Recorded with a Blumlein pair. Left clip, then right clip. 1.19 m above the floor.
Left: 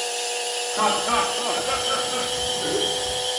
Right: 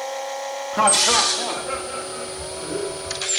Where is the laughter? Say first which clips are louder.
Right 4 dB; 20° right, 1.5 m; by 3.2 s 75° left, 1.4 m.